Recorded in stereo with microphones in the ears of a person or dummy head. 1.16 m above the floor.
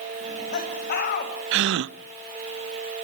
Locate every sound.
0.2 s laughter: 45° left (ahead or behind), 7.5 m
1.5 s a gasp: 55° right (ahead or behind), 0.6 m